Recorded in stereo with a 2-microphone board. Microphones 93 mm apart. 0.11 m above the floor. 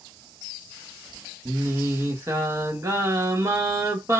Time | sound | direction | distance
1.4 | singing | 30° right (ahead or behind) | 1.4 m